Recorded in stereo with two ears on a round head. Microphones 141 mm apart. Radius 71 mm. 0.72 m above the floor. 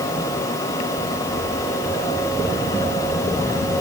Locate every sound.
Only background noise.